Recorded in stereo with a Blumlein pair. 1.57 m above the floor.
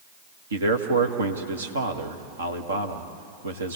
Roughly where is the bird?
No bird in this recording.